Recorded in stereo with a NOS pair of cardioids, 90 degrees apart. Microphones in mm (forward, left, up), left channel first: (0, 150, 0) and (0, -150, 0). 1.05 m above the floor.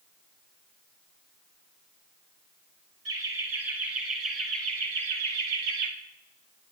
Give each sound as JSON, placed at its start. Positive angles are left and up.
{"t": 3.0, "sound": "laughter", "azimuth_deg": -50, "distance_m": 6.0}